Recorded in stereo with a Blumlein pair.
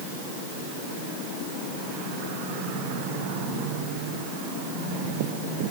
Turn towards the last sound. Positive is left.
No sound to turn to.